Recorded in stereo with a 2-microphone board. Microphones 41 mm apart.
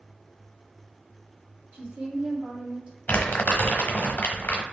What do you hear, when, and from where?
1.7 s a woman speaking: 35° right (ahead or behind), 1.0 m
3.1 s crumpling: 50° left (ahead or behind), 1.1 m